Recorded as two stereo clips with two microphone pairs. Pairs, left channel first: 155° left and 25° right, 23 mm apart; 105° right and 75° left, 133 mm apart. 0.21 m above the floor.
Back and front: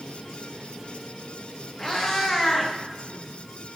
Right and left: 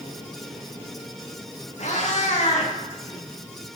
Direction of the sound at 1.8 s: 135° right.